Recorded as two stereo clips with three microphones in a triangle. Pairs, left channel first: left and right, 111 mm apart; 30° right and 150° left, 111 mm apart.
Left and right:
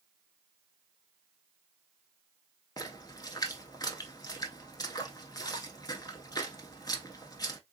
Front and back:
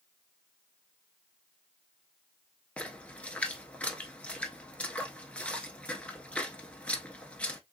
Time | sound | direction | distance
2.8 | a splash | 45° left | 0.8 m